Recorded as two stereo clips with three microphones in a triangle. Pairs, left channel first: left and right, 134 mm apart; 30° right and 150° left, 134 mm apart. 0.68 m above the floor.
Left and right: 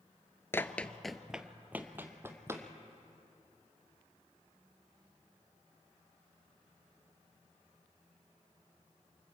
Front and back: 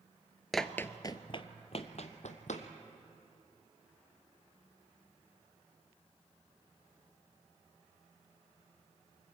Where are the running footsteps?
60° left, 0.6 m; by 2.7 s 20° right, 1.7 m.